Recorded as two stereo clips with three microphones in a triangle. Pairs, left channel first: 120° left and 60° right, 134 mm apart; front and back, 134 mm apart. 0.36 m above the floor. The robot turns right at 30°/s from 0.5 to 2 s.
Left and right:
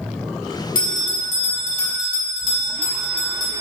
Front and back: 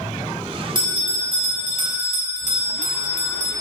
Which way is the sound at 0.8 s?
125° left.